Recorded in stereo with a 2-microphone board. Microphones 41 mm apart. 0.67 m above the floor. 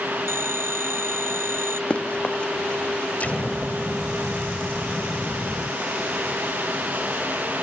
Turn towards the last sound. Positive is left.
turn(degrees=35)  # may be behind; listen again after turning